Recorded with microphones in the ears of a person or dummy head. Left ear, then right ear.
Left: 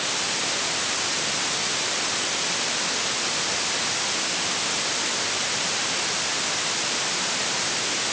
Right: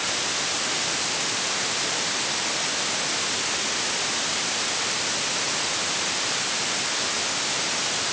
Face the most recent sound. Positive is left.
No sound to turn to.